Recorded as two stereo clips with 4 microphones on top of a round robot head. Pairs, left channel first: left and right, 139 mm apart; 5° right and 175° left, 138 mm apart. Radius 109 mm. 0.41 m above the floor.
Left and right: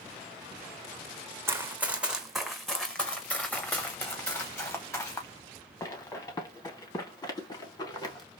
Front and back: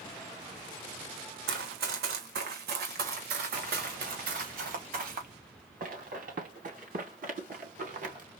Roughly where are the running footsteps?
Behind.